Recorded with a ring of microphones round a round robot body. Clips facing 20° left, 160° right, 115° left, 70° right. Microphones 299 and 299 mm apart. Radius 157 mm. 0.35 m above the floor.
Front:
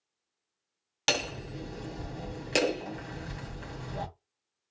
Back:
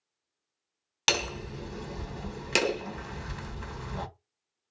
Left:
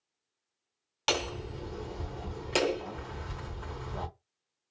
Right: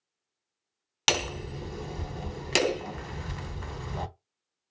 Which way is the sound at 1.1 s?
95° right.